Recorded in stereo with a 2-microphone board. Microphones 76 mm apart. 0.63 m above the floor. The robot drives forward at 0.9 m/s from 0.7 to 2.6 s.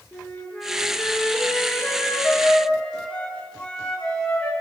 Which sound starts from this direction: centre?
A flute, at 0.1 s.